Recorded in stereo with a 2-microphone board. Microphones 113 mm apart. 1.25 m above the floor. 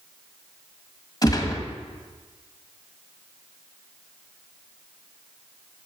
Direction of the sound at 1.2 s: 35° left (ahead or behind).